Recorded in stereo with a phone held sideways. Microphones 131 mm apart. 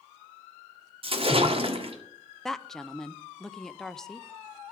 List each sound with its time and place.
1.0 s a splash: 45° right (ahead or behind), 1.5 m
2.5 s a woman speaking: 5° left (ahead or behind), 0.6 m